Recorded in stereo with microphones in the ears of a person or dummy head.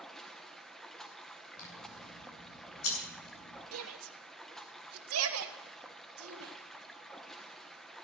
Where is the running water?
Centre (ahead or behind), 1.1 m.